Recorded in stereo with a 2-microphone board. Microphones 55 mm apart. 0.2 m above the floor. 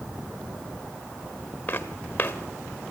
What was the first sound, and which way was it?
Footsteps, 30° left (ahead or behind).